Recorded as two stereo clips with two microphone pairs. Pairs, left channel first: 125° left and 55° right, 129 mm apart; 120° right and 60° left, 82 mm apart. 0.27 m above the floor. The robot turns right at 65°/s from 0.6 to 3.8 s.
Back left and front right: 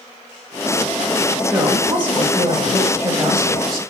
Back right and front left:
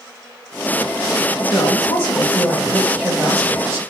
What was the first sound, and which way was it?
A woman speaking, 110° right.